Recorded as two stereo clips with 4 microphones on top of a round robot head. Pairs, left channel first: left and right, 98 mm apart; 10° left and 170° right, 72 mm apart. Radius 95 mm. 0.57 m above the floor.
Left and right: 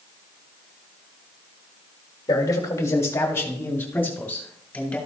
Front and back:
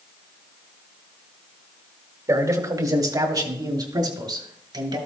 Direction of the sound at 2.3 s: 140° left.